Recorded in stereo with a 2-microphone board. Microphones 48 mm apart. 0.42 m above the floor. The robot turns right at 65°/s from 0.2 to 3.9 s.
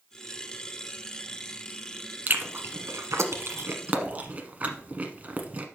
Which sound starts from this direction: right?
Chewing, at 2.3 s.